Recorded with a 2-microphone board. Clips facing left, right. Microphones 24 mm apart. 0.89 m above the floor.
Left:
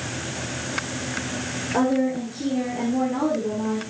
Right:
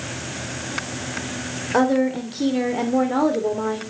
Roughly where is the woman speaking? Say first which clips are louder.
Right 3 dB; right.